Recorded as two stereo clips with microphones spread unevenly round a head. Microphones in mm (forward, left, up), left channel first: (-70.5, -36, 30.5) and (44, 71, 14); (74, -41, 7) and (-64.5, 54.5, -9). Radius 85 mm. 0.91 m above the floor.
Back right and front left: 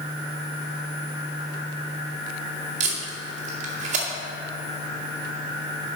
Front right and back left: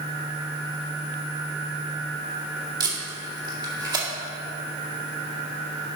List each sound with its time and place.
2.8 s tape being pulled: 80° left, 2 m